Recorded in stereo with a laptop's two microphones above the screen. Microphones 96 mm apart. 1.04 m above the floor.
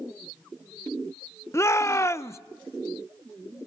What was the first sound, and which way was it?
A shout, 30° left (ahead or behind).